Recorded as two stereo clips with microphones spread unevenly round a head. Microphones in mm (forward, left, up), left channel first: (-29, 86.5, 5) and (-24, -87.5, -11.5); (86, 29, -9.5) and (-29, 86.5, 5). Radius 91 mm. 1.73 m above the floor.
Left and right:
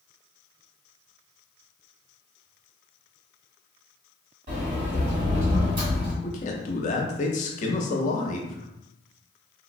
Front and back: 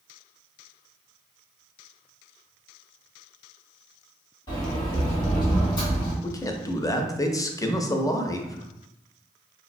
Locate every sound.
4.5 s a sliding door: 80° right, 1.5 m
6.2 s a man speaking: 40° left, 0.5 m